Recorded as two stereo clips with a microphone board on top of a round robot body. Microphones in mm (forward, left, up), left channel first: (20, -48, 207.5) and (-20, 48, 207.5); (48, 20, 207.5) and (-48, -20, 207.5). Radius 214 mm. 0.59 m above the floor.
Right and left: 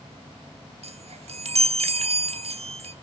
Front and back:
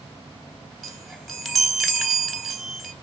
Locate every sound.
0.8 s a chime: 110° left, 3 m